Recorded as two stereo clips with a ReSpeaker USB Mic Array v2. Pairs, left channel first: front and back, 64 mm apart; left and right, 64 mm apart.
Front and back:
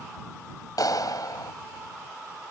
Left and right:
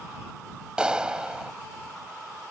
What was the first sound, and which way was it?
A clap, 15° right.